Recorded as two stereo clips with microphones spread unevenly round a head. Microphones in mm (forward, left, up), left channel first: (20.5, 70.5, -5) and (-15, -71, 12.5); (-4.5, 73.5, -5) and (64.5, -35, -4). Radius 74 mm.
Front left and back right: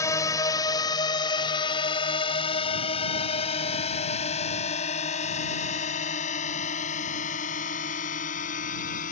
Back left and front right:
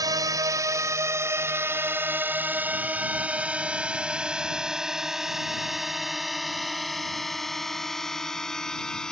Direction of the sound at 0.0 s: 5° left.